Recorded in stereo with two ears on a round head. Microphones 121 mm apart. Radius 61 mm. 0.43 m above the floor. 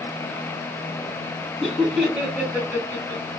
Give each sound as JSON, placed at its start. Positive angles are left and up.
{"t": 1.6, "sound": "laughter", "side_deg": 0, "distance_m": 2.0}